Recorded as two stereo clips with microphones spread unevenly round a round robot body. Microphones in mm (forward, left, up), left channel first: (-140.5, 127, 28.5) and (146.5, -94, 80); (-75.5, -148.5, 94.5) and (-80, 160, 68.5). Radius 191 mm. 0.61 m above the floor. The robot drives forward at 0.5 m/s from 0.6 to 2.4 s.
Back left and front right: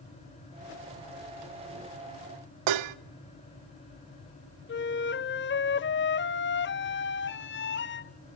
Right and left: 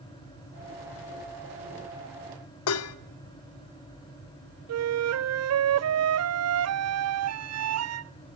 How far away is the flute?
About 0.9 m.